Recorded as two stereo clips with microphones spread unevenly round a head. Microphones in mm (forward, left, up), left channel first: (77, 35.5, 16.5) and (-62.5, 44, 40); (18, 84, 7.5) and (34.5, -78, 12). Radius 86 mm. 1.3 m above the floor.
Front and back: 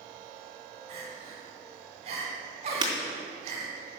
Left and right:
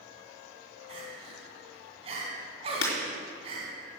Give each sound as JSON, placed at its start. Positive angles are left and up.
{"t": 0.9, "sound": "crying", "azimuth_deg": -135, "distance_m": 2.5}
{"t": 2.8, "sound": "breaking glass", "azimuth_deg": 120, "distance_m": 3.5}